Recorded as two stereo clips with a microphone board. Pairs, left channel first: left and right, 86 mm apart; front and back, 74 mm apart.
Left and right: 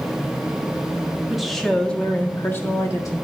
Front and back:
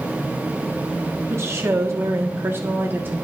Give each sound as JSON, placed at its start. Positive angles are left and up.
{"t": 1.3, "sound": "a woman speaking", "azimuth_deg": -175, "distance_m": 1.4}